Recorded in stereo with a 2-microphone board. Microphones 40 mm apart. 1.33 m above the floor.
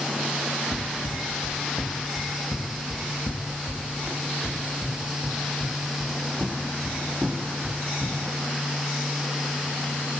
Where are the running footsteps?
45° left (ahead or behind), 3.5 m; by 8.2 s 15° right (ahead or behind), 6 m.